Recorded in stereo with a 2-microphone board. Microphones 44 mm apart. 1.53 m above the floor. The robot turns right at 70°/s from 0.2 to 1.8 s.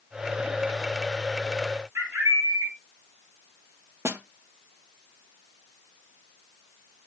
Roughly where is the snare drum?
Right.